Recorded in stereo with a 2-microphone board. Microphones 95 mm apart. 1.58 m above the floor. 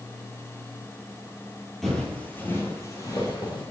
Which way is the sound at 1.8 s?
Centre (ahead or behind).